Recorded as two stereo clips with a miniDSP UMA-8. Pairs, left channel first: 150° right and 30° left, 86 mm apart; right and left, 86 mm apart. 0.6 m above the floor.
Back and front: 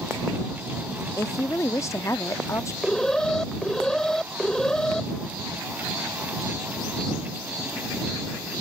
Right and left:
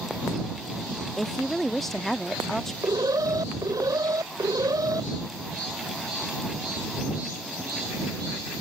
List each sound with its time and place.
1.2 s a woman speaking: 175° right
2.8 s an alarm: 125° left